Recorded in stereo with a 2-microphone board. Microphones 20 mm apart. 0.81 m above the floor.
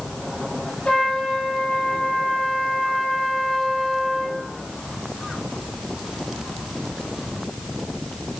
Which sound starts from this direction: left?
A trumpet, at 0.8 s.